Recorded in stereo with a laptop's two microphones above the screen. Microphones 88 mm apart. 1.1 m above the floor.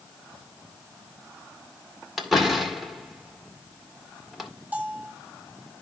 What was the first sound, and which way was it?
A door slam, centre (ahead or behind).